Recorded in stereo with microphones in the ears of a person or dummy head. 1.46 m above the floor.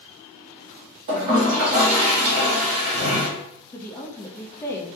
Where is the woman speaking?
10° left (ahead or behind), 0.6 m.